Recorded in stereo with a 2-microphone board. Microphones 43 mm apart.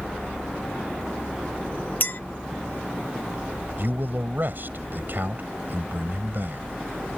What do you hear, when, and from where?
2.0 s a clink: 55° left (ahead or behind)
3.8 s a man speaking: 50° right (ahead or behind)